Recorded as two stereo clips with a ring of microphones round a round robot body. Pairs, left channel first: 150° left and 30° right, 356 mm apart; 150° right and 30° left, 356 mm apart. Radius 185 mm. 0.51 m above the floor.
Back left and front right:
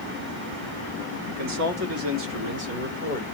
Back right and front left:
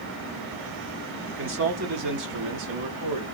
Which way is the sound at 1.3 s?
20° right.